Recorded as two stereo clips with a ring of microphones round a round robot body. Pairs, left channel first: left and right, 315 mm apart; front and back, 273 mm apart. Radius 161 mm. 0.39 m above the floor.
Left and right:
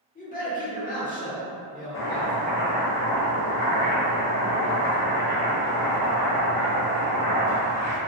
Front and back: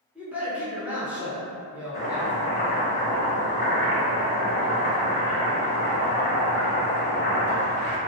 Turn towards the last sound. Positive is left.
turn(degrees=50)